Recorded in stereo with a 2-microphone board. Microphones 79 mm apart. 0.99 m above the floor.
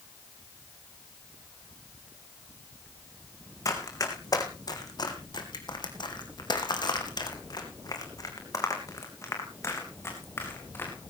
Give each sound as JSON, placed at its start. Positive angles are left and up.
{"t": 3.6, "sound": "running footsteps", "side_deg": 45, "distance_m": 3.5}